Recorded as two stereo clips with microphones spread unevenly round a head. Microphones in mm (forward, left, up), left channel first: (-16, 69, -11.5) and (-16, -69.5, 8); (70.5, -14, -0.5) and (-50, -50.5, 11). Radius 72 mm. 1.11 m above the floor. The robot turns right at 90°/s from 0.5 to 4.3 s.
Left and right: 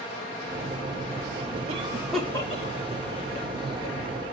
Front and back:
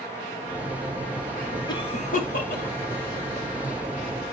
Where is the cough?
40° right, 2 m; by 4.0 s 165° left, 2 m.